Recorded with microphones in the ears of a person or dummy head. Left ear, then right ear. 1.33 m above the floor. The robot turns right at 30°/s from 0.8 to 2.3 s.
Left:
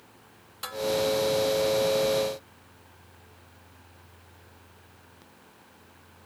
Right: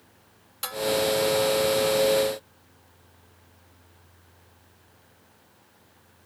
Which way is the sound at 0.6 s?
15° right (ahead or behind).